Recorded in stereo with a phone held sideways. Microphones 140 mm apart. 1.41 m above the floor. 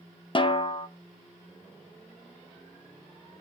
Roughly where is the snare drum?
Left.